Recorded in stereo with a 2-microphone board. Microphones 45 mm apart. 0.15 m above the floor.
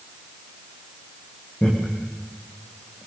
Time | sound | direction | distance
1.6 | laughter | 20° left (ahead or behind) | 6.5 m